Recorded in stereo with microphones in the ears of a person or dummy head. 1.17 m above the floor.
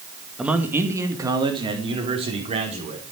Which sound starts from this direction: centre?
A man speaking, at 0.4 s.